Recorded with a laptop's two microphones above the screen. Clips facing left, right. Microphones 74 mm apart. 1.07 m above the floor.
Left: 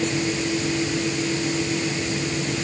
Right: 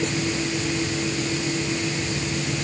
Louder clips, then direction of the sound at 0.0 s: Left 1 dB; 15° left (ahead or behind).